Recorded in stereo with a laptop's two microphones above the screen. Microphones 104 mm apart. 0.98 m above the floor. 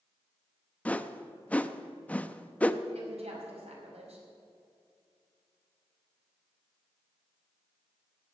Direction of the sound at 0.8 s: 15° left (ahead or behind).